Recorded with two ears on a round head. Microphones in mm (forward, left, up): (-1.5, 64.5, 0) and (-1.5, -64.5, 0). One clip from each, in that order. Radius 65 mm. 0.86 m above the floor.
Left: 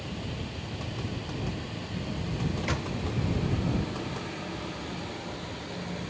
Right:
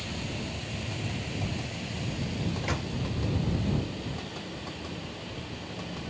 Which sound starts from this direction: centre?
A microwave, at 2.6 s.